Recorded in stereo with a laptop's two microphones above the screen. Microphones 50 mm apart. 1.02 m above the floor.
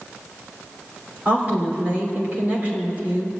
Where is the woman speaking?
35° right (ahead or behind), 3.5 m.